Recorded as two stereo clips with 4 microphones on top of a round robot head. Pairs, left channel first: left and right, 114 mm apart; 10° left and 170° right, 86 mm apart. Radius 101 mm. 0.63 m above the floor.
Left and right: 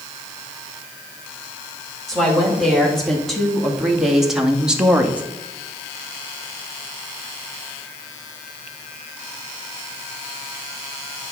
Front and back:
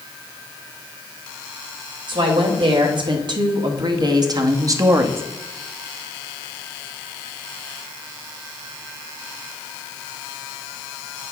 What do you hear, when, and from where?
2.1 s a woman speaking: 175° left, 2.5 m; by 5.2 s 155° right, 1.0 m